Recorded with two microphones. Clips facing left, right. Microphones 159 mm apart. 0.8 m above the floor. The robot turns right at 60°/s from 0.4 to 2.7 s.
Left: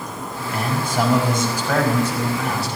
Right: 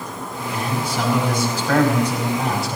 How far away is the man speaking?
About 5 m.